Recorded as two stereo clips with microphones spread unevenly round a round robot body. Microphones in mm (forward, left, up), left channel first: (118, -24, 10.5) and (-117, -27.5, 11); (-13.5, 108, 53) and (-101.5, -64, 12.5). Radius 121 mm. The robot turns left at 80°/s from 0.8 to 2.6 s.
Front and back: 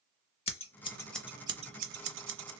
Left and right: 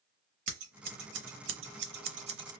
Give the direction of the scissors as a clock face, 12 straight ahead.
2 o'clock.